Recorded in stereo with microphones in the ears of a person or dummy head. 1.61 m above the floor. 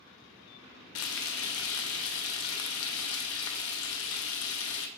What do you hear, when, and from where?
0.9 s frying: 70° left (ahead or behind), 0.7 m